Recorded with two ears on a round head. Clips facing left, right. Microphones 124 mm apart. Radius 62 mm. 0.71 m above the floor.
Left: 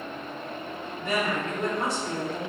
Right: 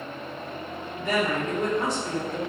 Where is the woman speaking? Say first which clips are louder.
Right 2 dB; 65° right (ahead or behind), 1.6 m.